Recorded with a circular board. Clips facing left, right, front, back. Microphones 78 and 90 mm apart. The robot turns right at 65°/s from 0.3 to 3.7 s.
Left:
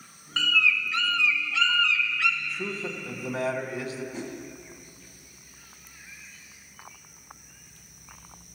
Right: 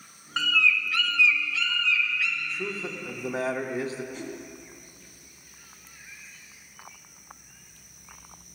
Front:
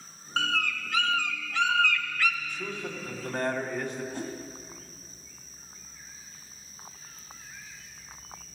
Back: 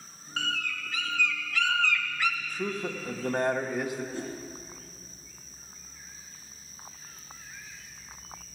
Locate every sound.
0.4 s a bird: 15° right, 0.7 m; by 2.3 s 110° left, 0.7 m
2.4 s a man speaking: 170° left, 0.9 m; by 4.0 s 105° right, 0.9 m
4.1 s a whoosh: 10° left, 1.4 m